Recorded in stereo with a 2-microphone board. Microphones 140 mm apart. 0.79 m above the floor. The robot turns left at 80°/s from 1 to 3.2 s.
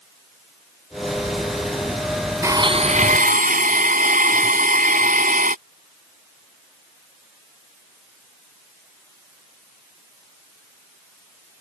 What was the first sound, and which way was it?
A blender, 20° right.